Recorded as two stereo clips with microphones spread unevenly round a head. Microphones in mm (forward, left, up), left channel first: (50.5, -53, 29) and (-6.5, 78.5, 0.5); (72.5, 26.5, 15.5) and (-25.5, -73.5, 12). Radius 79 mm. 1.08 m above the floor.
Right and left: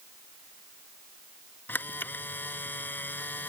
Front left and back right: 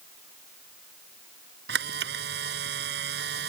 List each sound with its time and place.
1.7 s a camera shutter: 145° right